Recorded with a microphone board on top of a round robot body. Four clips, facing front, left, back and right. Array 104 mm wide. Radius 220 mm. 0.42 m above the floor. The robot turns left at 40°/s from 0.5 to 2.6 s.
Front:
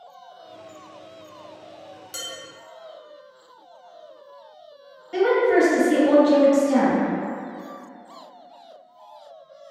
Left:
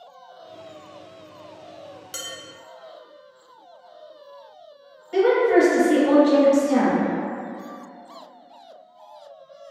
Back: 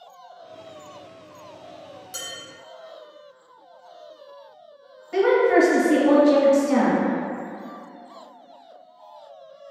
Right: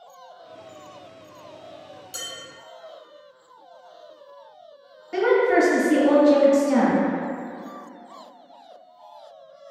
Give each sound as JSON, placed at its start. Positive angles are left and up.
{"t": 2.1, "sound": "dishes clattering", "azimuth_deg": 80, "distance_m": 0.8}
{"t": 5.1, "sound": "a woman speaking", "azimuth_deg": -130, "distance_m": 1.4}